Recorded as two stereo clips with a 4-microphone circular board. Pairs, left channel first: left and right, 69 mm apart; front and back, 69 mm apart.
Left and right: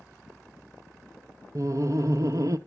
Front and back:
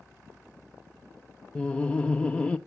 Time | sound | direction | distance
1.6 | laughter | 70° right | 0.5 m